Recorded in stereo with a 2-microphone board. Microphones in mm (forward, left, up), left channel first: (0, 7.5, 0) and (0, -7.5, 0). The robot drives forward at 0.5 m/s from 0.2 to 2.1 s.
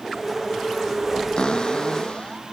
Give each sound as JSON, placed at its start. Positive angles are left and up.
{"t": 1.4, "sound": "a cupboard door", "side_deg": 60}